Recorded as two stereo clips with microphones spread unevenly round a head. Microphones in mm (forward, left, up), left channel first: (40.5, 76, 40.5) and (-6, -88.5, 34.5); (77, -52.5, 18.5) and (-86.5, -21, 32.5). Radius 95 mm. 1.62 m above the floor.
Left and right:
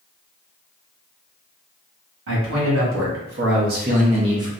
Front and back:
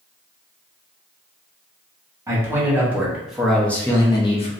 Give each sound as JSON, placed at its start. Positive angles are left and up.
{"t": 2.3, "sound": "a man speaking", "azimuth_deg": -120, "distance_m": 1.2}